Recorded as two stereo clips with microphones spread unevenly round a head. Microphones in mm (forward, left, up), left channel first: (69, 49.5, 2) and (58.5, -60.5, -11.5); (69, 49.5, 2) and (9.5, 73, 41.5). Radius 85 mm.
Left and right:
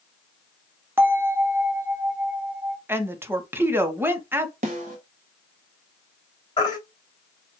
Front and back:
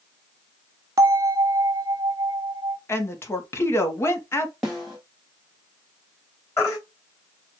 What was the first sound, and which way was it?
A bell, 135° right.